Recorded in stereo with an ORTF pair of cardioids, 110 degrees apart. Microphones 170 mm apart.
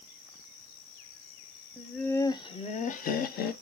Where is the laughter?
Straight ahead, 0.8 m; by 3.5 s 65° left, 1.1 m.